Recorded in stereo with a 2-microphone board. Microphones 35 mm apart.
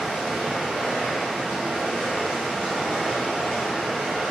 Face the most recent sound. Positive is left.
turn(degrees=10)  # may be behind; listen again after turning